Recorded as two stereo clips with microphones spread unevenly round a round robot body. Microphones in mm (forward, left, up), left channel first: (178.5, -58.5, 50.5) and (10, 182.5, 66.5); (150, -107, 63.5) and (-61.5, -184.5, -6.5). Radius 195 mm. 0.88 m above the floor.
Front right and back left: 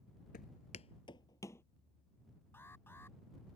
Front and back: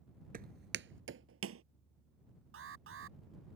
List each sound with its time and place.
0.3 s footsteps: 110° right; by 1.6 s 140° right
2.5 s an alarm: 140° right